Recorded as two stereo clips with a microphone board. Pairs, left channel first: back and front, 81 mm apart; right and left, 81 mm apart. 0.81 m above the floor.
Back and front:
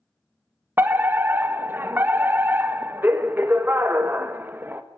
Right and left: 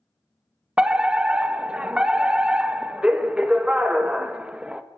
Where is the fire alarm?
25° left, 1.4 m.